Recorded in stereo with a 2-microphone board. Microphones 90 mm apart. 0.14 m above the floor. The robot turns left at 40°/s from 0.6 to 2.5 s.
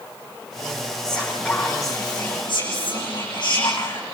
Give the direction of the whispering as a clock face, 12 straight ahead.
6 o'clock.